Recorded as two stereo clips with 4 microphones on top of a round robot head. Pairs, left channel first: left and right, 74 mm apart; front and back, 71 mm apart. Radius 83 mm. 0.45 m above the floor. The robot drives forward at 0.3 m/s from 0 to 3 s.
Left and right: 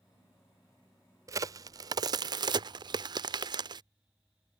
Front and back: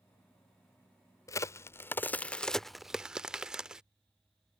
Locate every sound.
1.3 s a crack: 45° right; by 3.8 s 100° right